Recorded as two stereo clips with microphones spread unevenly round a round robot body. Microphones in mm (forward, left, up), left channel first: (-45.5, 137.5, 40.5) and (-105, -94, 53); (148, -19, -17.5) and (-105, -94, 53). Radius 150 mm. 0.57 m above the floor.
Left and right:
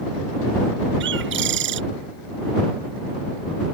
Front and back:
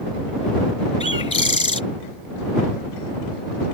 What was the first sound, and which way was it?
A bird, 50° right.